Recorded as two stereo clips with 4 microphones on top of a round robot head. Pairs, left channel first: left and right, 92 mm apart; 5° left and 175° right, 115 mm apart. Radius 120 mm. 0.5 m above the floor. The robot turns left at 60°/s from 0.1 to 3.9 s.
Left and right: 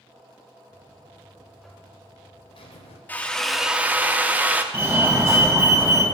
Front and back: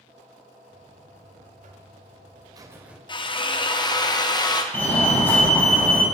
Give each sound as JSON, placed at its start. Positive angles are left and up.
{"t": 0.7, "sound": "a buzzer", "azimuth_deg": -120, "distance_m": 0.7}
{"t": 3.1, "sound": "a drill", "azimuth_deg": 25, "distance_m": 0.7}
{"t": 4.7, "sound": "a fire alarm", "azimuth_deg": -55, "distance_m": 2.0}